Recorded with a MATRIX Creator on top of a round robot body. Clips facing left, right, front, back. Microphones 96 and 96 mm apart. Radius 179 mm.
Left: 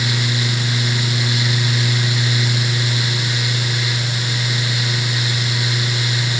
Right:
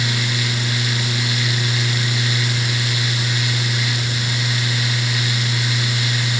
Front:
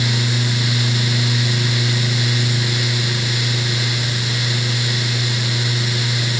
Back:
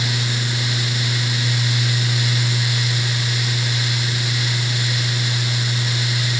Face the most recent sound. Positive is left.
No sound to turn to.